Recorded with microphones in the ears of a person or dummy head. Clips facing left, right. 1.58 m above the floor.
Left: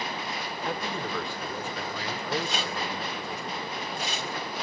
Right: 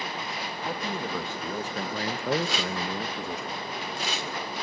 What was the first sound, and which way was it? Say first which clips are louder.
A man speaking: even; centre (ahead or behind).